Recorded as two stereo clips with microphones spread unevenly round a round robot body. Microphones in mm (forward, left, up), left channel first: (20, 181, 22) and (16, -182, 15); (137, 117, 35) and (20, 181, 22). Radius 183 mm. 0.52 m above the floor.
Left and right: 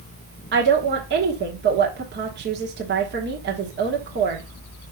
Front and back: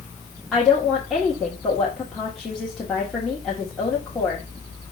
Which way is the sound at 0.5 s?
125° right.